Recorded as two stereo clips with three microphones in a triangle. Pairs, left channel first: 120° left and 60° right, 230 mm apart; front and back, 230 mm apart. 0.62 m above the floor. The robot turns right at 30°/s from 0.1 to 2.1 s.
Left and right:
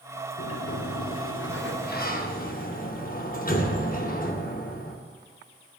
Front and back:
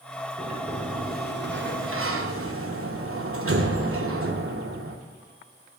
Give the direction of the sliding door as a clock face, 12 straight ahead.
8 o'clock.